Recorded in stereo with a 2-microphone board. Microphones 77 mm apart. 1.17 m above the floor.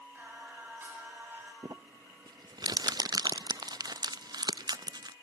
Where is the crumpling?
60° right (ahead or behind), 0.6 m.